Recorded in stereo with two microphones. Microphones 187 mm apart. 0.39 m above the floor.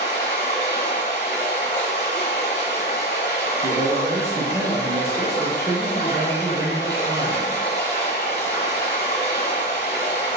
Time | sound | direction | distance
0.0 | running water | 60° left (ahead or behind) | 1.0 m
3.6 | a man speaking | 25° right (ahead or behind) | 0.9 m